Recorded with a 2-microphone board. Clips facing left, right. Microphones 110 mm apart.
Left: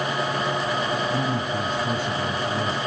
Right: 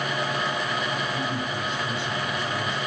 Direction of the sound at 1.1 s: 45° left (ahead or behind).